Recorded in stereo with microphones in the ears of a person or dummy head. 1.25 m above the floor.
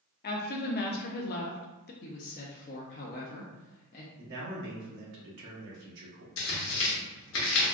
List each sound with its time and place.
0.2 s a woman speaking: 55° left (ahead or behind), 0.6 m
2.0 s a woman speaking: 45° left (ahead or behind), 0.5 m
4.2 s a man speaking: 60° right (ahead or behind), 1.1 m
6.4 s tearing paper: 75° left (ahead or behind), 1.1 m